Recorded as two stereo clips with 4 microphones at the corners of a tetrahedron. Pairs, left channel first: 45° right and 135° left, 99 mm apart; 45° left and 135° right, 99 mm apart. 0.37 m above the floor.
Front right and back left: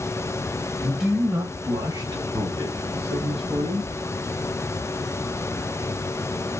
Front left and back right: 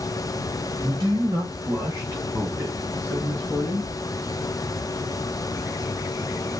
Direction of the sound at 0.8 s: 130° right.